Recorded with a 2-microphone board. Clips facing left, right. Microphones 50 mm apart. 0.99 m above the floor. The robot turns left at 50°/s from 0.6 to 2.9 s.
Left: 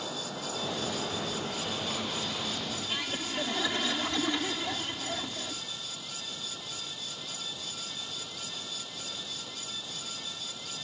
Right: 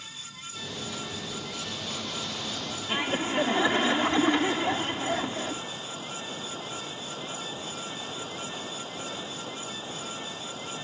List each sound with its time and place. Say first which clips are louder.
0.0 s running water: left 7 dB; 85° left; by 10.8 s 30° right
2.9 s laughter: right 10 dB; 30° right (ahead or behind)